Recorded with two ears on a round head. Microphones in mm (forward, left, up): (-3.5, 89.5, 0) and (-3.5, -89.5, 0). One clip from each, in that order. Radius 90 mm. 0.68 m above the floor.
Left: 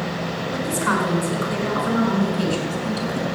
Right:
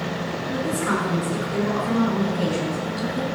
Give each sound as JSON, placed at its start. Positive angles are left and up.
{"t": 0.5, "sound": "a woman speaking", "side_deg": 25, "distance_m": 6.0}